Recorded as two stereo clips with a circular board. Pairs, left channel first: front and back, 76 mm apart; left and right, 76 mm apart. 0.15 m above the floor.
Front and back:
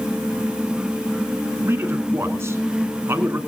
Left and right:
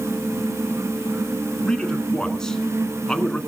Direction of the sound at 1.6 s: 165° left.